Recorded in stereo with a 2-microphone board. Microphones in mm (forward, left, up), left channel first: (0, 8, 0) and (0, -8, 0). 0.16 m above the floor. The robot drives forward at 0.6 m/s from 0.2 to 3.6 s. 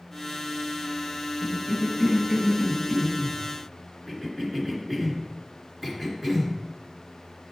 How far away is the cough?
About 1.2 m.